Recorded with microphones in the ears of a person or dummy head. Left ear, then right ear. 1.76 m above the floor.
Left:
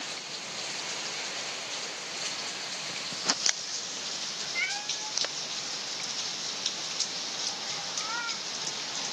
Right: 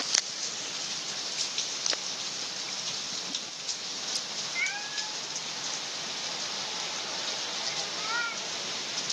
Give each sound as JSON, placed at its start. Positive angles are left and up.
{"t": 4.5, "sound": "a cat meowing", "side_deg": 10}